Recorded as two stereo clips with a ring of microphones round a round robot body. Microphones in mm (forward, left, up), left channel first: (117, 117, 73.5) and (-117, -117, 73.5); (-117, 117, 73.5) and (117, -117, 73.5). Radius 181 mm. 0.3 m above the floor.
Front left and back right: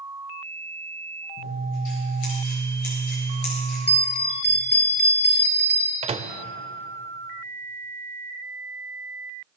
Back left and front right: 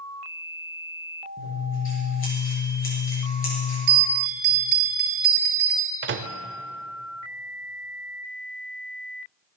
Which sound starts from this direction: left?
Scissors, at 1.4 s.